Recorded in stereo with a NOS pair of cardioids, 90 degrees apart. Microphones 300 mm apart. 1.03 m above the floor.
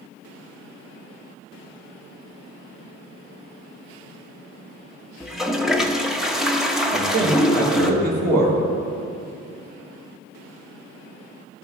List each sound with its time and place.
5.2 s a toilet flushing: straight ahead, 0.9 m
6.9 s a man speaking: 70° right, 3 m